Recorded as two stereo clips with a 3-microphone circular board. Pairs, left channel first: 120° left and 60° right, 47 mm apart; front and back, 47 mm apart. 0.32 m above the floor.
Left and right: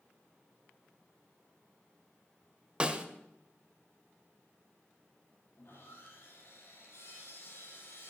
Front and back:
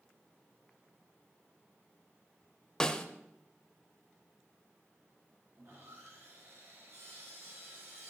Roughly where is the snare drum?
Ahead right.